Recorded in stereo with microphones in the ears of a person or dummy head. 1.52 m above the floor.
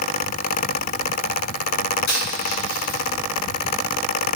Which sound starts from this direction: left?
A dropped coin, at 2.1 s.